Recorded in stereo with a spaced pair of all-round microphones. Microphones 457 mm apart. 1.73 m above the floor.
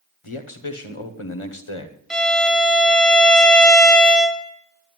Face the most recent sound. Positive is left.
turn(degrees=0)  # may be behind; listen again after turning